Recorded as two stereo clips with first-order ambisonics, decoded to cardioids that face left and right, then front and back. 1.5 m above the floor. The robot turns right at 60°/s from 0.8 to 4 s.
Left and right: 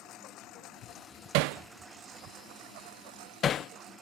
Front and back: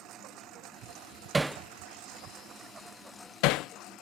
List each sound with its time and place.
0.0 s a lawn mower: 135° left; by 4.0 s 30° right
1.3 s hammering: 105° right; by 3.7 s 40° left